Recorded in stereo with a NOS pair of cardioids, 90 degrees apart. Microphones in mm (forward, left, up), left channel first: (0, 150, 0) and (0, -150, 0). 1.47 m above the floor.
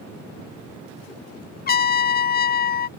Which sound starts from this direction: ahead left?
A trumpet, at 1.7 s.